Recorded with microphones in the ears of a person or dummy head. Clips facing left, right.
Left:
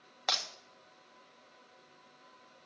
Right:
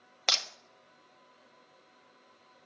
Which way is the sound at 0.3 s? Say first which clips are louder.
Even; 35° right (ahead or behind).